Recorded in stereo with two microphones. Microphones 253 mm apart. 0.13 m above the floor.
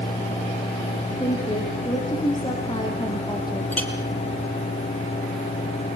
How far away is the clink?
About 3 m.